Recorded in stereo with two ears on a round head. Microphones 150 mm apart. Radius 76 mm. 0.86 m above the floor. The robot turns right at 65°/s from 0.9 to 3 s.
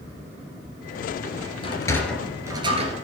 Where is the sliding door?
35° left (ahead or behind), 2 m; by 2.9 s 45° right (ahead or behind), 2 m.